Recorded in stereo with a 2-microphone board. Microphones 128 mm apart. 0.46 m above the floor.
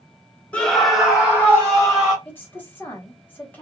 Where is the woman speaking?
15° left (ahead or behind), 1.2 m.